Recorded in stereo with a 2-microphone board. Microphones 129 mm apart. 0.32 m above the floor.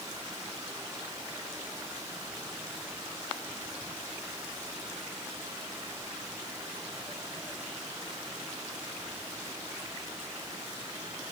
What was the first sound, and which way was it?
Only background noise.